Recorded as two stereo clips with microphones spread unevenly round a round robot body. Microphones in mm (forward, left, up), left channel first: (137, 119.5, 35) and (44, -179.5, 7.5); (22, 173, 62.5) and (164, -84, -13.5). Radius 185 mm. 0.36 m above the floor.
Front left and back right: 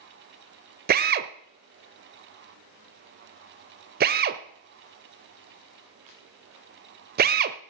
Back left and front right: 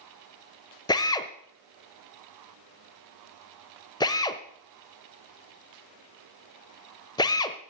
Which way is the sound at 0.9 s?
155° right.